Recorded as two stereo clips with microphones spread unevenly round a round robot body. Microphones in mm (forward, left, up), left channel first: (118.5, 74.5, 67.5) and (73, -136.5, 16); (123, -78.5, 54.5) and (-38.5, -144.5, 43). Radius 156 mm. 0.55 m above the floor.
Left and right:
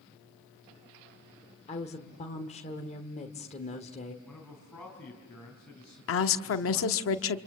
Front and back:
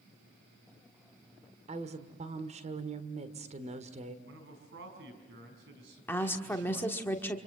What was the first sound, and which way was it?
A woman speaking, 150° left.